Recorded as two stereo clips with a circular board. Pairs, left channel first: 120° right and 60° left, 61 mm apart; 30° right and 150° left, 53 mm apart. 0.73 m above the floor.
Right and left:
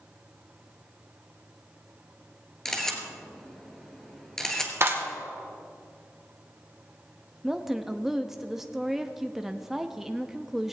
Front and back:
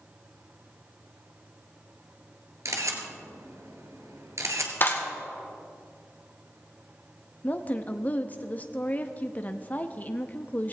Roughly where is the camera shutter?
Behind.